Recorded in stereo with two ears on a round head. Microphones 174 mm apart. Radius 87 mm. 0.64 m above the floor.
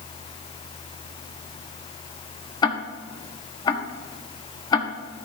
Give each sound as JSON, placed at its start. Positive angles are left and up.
{"t": 2.6, "sound": "ticking", "side_deg": 20, "distance_m": 1.1}